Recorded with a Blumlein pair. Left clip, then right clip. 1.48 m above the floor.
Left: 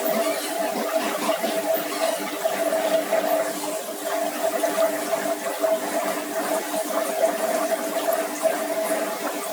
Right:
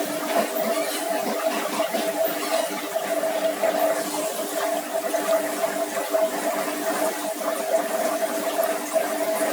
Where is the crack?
No crack in this recording.